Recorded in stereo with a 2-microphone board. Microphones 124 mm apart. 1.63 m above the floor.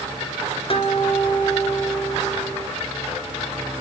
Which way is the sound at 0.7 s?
45° left (ahead or behind).